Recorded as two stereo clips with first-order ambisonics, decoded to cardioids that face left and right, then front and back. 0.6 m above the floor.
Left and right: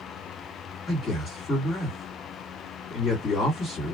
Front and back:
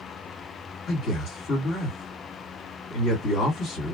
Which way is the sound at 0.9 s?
30° left.